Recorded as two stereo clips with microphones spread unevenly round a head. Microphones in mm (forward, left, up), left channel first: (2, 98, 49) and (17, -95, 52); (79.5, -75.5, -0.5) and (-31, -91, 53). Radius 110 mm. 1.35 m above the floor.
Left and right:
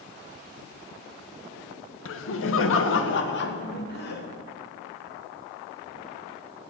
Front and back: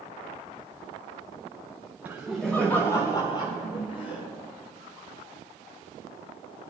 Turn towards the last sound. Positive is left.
turn(degrees=55)